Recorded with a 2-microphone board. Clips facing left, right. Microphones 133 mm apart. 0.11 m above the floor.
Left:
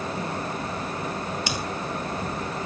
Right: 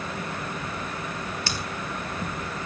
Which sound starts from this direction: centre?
Scissors, at 1.5 s.